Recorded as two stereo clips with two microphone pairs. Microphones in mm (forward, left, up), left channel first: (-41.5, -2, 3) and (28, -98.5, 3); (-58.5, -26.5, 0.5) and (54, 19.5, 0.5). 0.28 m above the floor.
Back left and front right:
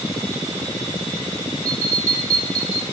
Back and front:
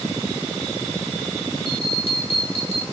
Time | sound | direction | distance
1.6 | a bell | 165° left | 0.9 m